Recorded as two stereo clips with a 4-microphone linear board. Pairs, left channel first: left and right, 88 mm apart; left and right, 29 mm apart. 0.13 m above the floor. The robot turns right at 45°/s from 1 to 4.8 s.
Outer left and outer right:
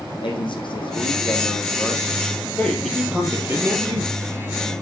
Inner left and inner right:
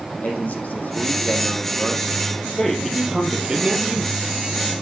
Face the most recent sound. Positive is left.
turn(degrees=-95)